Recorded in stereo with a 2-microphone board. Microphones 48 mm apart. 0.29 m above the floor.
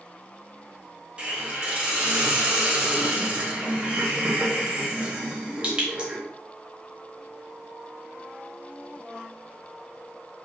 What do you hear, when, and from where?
1.2 s a hiss: 25° right (ahead or behind), 0.8 m